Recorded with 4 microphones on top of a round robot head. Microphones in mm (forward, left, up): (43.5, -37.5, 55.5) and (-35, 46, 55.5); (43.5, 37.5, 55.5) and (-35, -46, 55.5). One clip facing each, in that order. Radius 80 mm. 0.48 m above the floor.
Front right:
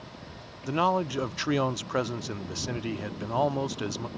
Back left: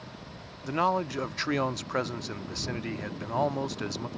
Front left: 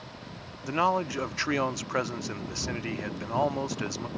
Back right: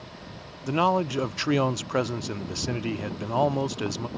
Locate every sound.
0.7 s a man speaking: 110° right